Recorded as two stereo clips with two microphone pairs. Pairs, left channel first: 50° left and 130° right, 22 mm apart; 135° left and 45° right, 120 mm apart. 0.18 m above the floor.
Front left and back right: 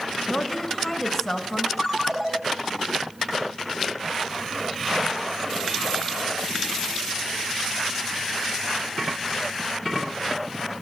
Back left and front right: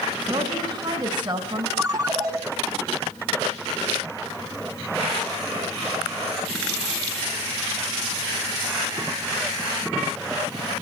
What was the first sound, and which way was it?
A woman speaking, 20° right.